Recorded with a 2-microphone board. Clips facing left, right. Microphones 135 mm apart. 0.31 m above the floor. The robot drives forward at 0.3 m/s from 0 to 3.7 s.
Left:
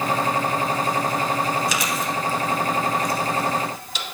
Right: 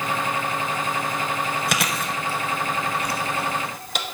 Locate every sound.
1.7 s chewing: 60° right (ahead or behind), 0.7 m; by 4.0 s 55° right (ahead or behind), 0.8 m